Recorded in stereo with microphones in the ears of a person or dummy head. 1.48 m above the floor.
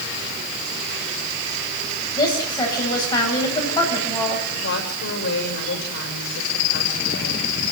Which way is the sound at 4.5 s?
65° left (ahead or behind).